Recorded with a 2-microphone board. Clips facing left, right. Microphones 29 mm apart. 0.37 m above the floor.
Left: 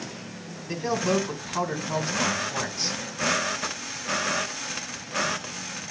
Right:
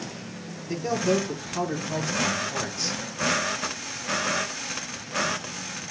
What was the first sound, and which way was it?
A man speaking, 35° left (ahead or behind).